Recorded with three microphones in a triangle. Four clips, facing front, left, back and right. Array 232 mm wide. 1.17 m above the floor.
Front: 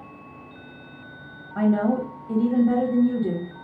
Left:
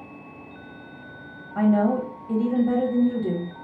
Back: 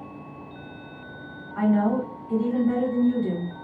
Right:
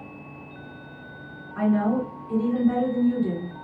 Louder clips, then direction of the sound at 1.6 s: Left 2 dB, front 1 dB; 55° left.